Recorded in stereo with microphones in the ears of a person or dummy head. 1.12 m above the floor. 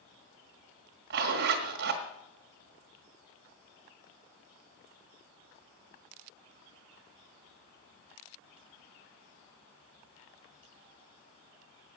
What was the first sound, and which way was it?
A zipper, 55° right (ahead or behind).